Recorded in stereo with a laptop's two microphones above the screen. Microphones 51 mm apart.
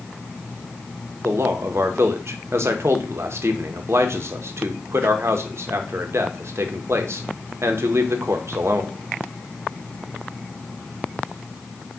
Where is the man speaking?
60° right (ahead or behind), 0.6 m.